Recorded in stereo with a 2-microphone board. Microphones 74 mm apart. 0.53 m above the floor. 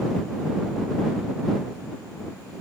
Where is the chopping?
No chopping in this recording.